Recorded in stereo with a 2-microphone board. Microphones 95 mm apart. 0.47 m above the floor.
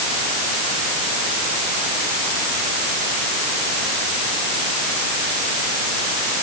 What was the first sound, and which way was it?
Only background noise.